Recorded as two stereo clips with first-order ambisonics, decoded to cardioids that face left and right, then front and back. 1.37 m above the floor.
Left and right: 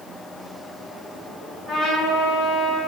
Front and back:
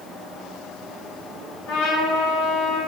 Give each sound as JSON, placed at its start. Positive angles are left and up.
{"t": 1.7, "sound": "a trumpet", "azimuth_deg": -5, "distance_m": 2.5}